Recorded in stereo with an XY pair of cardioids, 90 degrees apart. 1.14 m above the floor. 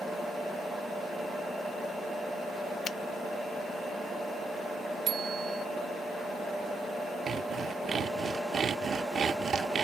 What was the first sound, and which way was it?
A finger snap, 65° left.